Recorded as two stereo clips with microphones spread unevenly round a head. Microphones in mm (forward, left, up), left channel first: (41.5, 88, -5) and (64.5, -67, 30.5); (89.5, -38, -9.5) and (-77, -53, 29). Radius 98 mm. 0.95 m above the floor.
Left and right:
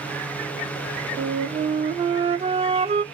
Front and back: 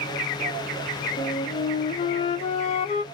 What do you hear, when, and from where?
1.2 s a flute: 30° right, 0.6 m